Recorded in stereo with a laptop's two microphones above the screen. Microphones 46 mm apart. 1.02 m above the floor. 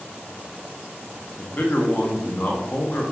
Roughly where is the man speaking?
Left.